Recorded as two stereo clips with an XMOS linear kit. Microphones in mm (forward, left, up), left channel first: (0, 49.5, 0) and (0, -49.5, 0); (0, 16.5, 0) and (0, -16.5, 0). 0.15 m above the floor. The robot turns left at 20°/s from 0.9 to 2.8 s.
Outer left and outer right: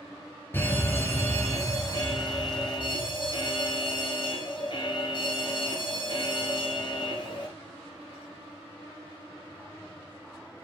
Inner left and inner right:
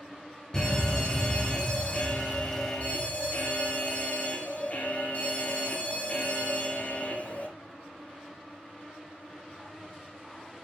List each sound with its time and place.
0.5 s a fire alarm: 155° left, 4 m; by 7.5 s 115° left, 4 m